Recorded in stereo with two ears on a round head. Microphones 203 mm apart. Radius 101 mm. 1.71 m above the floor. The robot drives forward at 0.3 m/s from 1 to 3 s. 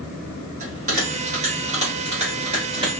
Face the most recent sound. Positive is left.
turn(degrees=-25)  # may be behind; listen again after turning